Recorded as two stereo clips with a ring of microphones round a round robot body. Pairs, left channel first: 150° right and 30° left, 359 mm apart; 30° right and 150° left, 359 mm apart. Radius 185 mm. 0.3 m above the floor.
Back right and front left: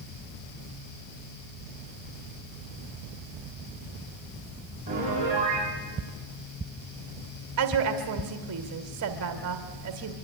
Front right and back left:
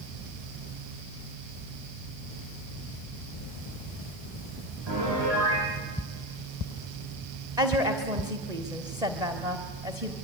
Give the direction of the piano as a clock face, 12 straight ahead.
9 o'clock.